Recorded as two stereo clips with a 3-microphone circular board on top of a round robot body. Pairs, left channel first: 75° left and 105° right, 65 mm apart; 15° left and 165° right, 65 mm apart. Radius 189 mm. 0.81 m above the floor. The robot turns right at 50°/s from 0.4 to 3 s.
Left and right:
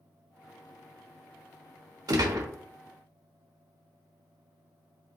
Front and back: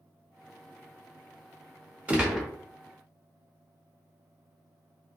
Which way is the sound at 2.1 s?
95° right.